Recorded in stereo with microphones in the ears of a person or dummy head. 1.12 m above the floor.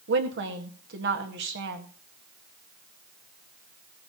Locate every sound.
0.1 s a woman speaking: 55° right (ahead or behind), 1.8 m